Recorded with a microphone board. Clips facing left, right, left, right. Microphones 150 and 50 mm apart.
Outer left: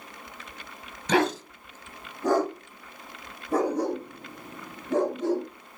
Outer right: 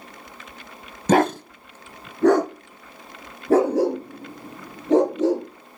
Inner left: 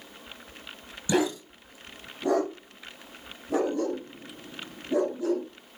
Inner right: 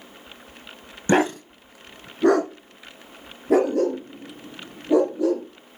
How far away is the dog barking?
About 0.8 m.